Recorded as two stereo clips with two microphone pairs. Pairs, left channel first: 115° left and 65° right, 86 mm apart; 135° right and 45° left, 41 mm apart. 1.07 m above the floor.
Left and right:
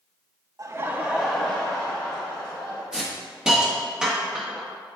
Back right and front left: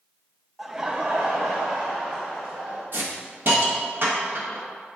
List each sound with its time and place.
0.6 s laughter: 35° right, 0.5 m; by 2.8 s 60° left, 1.4 m
2.9 s a hiss: 15° left, 1.1 m